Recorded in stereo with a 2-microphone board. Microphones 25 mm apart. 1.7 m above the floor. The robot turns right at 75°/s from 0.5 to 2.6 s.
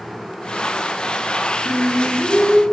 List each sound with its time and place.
1.6 s singing: 10° left (ahead or behind), 1.3 m; by 2.6 s 20° left (ahead or behind), 1.3 m